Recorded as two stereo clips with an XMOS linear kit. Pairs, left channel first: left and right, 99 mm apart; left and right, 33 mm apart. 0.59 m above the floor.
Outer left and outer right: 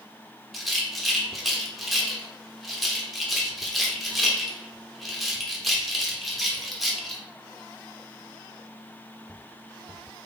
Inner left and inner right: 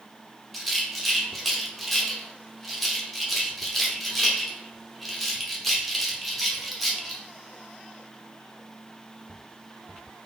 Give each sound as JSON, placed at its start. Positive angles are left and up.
{"t": 0.5, "sound": "a rattle", "side_deg": 0, "distance_m": 0.8}